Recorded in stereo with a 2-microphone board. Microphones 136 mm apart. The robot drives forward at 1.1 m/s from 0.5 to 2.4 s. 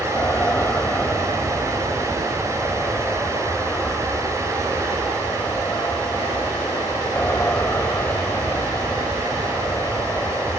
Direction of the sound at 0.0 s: 15° left (ahead or behind).